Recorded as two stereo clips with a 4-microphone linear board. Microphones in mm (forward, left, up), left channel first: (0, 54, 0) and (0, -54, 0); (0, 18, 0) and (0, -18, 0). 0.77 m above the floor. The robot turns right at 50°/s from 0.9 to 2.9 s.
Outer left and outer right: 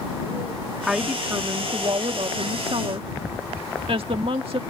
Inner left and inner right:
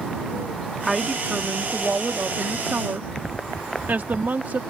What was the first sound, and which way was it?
A woman speaking, 175° right.